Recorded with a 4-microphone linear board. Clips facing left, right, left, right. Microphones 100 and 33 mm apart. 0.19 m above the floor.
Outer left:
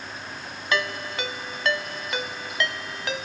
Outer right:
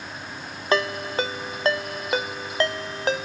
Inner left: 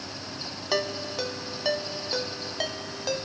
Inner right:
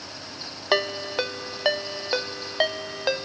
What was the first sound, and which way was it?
A ringtone, 35° right (ahead or behind).